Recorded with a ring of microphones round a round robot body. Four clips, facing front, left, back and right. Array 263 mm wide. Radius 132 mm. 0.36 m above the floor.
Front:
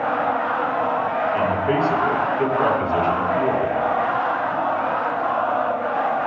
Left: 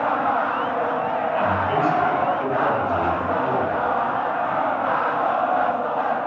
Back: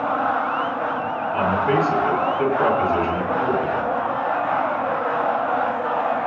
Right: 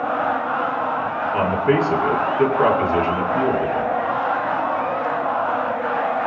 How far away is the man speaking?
About 6.5 m.